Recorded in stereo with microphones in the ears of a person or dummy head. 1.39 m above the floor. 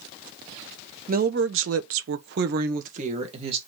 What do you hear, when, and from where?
1.1 s a woman speaking: 45° right (ahead or behind), 0.8 m; by 3.6 s 30° right (ahead or behind), 1.6 m